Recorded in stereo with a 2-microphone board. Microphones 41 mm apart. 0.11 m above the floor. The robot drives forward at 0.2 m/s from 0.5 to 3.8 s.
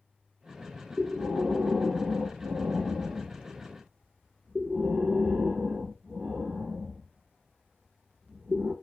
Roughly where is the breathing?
Centre.